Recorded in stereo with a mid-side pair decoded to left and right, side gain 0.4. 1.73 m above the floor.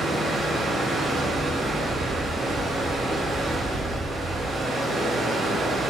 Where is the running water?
50° right, 2 m.